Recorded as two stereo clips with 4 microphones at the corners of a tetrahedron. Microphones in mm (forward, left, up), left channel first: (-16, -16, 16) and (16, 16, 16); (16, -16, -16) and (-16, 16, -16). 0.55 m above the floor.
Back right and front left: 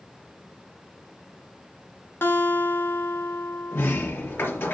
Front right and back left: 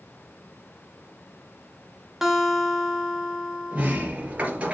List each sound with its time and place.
2.2 s a guitar: 140° right, 1.5 m
3.7 s a sliding door: 165° right, 3 m